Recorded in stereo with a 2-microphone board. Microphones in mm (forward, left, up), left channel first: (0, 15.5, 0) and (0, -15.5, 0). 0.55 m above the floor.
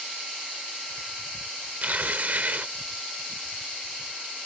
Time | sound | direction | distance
1.8 | tearing paper | 55° right (ahead or behind) | ?